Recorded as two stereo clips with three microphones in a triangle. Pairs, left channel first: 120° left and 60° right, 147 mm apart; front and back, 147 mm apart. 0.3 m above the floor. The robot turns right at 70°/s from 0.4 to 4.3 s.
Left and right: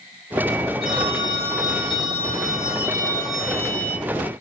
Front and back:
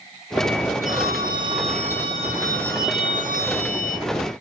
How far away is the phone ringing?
About 5.5 m.